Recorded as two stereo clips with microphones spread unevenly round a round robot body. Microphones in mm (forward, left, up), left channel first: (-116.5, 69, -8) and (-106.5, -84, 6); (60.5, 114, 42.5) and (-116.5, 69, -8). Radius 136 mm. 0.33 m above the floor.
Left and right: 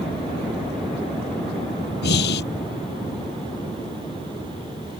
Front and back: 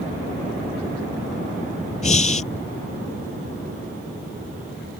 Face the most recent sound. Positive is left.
turn(degrees=65)